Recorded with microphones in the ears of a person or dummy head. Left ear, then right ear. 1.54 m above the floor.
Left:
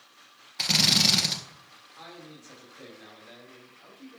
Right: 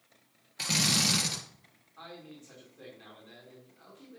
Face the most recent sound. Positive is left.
turn(degrees=5)  # may be behind; listen again after turning